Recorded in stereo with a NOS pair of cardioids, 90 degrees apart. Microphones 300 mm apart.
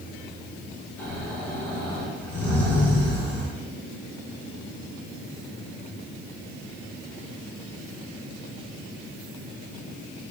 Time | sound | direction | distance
1.0 | snoring | 5° left | 1.9 m